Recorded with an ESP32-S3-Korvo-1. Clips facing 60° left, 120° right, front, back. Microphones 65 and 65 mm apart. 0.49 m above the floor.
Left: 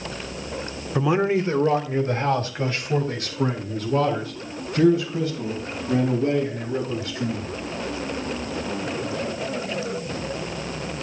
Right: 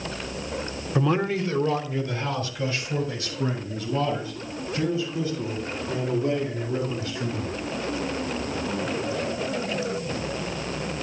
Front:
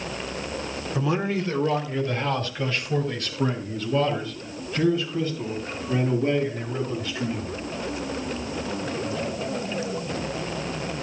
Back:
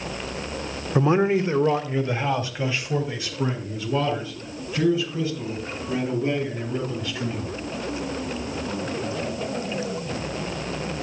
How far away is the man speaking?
About 0.9 m.